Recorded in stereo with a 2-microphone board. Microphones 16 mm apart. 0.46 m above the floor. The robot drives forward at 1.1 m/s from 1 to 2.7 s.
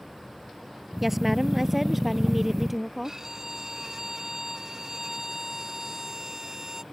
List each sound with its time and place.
1.0 s a woman speaking: 10° right (ahead or behind)
3.0 s a violin: 30° right (ahead or behind)